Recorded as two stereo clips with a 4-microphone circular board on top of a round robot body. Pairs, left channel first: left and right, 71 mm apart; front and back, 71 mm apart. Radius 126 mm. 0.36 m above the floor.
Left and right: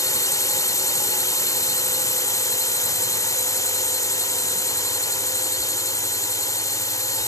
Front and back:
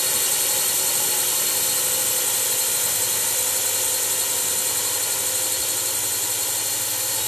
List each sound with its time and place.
0.0 s a drone: 90° left